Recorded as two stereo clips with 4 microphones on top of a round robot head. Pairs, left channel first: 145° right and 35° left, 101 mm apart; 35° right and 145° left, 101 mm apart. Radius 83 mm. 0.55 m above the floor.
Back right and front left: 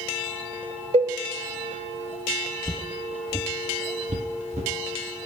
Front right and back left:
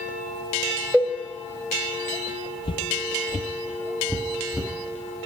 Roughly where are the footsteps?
Right.